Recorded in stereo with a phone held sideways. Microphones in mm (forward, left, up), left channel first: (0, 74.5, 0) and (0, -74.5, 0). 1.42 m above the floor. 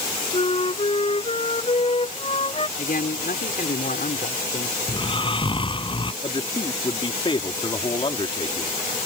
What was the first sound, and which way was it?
A flute, 40° left (ahead or behind).